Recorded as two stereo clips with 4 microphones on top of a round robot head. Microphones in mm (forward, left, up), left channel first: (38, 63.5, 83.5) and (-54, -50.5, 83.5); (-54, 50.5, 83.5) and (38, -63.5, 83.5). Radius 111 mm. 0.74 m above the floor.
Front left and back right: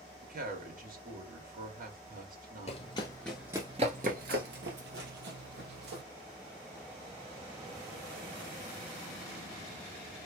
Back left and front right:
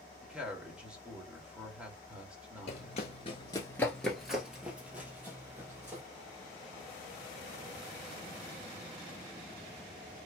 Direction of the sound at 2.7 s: 85° left.